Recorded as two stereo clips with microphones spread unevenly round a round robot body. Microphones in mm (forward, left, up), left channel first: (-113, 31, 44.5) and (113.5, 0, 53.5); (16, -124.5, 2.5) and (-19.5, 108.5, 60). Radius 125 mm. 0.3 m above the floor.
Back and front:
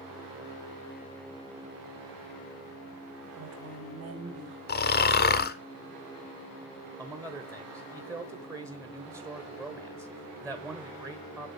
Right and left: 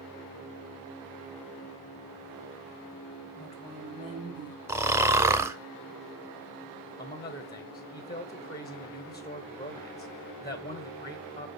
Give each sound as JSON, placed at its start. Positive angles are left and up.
{"t": 3.4, "sound": "a woman speaking", "azimuth_deg": -30, "distance_m": 2.0}
{"t": 4.7, "sound": "snoring", "azimuth_deg": -170, "distance_m": 0.7}
{"t": 7.0, "sound": "a man speaking", "azimuth_deg": -75, "distance_m": 1.0}